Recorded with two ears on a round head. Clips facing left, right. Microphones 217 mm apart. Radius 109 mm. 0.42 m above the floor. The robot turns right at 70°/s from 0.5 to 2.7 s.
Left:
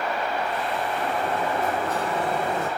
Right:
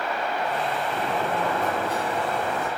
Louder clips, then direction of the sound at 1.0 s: Right 1 dB; 95° right.